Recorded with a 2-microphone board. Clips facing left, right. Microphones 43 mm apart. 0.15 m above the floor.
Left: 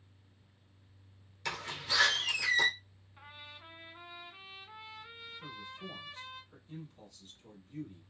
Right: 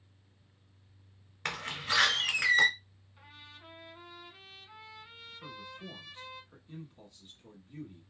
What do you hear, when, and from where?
1.4 s a door slam: 50° right (ahead or behind), 1.5 m
3.2 s a trumpet: 20° left (ahead or behind), 0.9 m
5.4 s a man speaking: 15° right (ahead or behind), 1.2 m